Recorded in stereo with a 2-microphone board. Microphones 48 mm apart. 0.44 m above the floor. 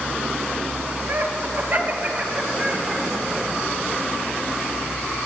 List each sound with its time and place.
1.1 s laughter: 55° right (ahead or behind), 2.5 m; by 3.0 s 15° right (ahead or behind), 2 m